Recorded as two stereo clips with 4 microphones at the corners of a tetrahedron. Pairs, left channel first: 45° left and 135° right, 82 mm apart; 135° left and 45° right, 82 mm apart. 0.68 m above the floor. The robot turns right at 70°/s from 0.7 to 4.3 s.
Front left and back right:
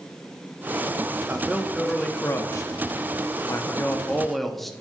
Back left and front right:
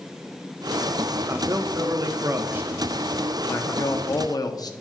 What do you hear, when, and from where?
1.3 s a man speaking: 80° right, 0.7 m; by 4.7 s 130° left, 0.7 m